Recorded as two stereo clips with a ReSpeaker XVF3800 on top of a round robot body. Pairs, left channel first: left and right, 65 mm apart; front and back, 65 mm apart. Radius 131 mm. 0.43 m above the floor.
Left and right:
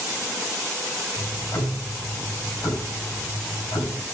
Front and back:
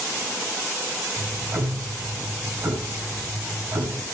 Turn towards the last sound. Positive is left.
turn(degrees=125)